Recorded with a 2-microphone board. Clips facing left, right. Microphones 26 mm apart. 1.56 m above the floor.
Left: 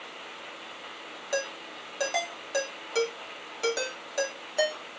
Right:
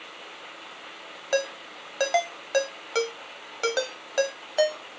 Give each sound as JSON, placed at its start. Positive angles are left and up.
{"t": 1.3, "sound": "a ringtone", "side_deg": -30, "distance_m": 0.8}